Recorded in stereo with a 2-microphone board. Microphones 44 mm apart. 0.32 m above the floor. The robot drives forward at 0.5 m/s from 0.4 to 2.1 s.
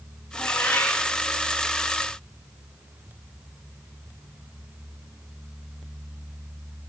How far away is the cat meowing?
About 9.5 m.